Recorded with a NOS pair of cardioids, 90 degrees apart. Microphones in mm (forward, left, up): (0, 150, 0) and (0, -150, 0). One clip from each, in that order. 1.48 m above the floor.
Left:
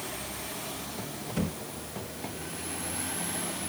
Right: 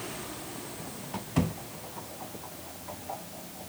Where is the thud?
55° right, 2.5 m.